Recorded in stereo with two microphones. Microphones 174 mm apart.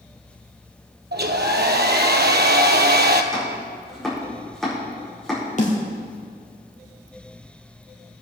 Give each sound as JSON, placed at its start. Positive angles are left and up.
{"t": 1.1, "sound": "a hair dryer", "side_deg": -75, "distance_m": 0.8}
{"t": 3.3, "sound": "chopping", "side_deg": 5, "distance_m": 5.0}
{"t": 5.6, "sound": "a snare drum", "side_deg": 45, "distance_m": 2.5}